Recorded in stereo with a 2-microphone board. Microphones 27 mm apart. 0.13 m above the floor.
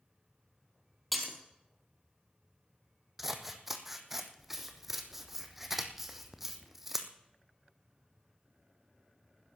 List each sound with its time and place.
1.1 s breaking glass: 5° left (ahead or behind), 2 m
3.2 s scissors: 10° right (ahead or behind), 1.2 m